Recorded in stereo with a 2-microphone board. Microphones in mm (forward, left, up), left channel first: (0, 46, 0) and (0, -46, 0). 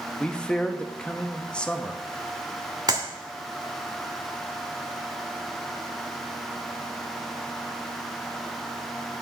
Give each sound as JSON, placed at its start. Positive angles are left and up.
{"t": 0.2, "sound": "a man speaking", "side_deg": 10, "distance_m": 1.1}
{"t": 2.9, "sound": "a clap", "side_deg": -45, "distance_m": 2.0}